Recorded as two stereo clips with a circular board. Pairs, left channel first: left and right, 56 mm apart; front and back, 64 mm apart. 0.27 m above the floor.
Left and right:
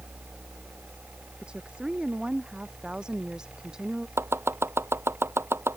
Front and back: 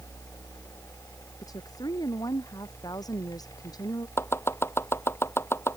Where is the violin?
I don't hear a violin.